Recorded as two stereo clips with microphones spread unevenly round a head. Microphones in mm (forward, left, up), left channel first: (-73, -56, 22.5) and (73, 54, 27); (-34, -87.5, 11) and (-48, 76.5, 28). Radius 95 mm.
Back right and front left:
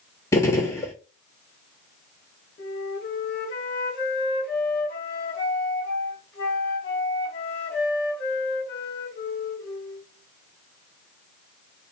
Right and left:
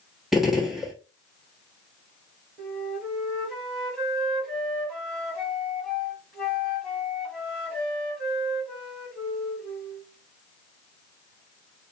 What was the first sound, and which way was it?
A gunshot, 165° left.